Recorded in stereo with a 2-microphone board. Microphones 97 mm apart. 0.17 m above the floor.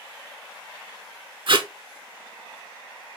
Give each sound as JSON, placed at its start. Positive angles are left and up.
{"t": 1.5, "sound": "tape being pulled", "side_deg": -60, "distance_m": 0.6}